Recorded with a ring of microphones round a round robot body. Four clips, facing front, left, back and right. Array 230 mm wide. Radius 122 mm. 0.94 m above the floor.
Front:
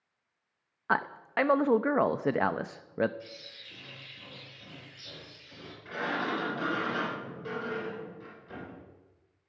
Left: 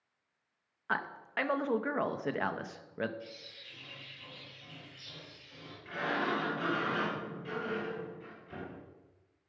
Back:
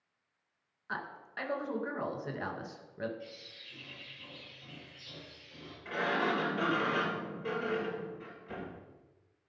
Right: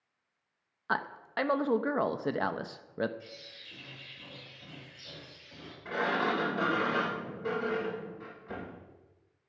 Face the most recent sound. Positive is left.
turn(degrees=-100)